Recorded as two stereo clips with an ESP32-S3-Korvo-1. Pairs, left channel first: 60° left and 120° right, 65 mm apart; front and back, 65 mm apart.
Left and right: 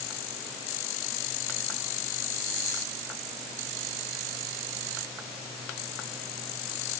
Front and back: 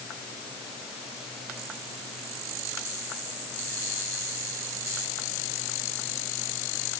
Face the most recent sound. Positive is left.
No sound to turn to.